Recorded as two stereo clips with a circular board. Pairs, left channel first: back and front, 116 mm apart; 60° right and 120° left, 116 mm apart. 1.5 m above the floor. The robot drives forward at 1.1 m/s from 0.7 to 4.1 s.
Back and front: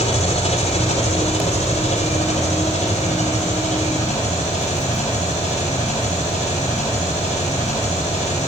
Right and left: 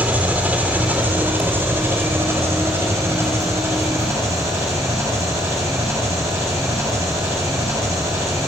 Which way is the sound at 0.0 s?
165° right.